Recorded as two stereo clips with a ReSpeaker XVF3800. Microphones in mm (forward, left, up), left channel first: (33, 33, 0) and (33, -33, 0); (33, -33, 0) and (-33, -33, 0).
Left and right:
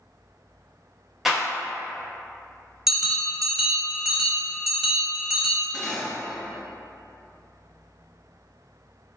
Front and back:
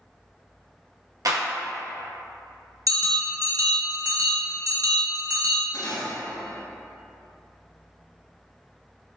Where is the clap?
175° right, 0.8 m.